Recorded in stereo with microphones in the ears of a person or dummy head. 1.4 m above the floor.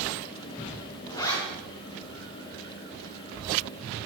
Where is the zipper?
20° left (ahead or behind), 3.5 m.